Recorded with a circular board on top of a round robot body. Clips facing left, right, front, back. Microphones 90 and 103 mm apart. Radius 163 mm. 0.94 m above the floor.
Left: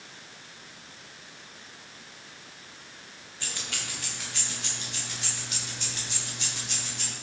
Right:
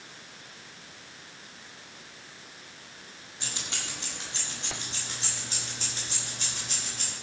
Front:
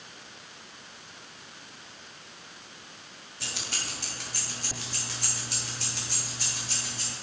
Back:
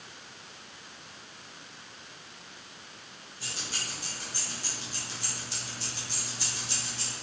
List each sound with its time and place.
3.4 s keys jangling: 20° right, 1.9 m; by 7.1 s 40° right, 4 m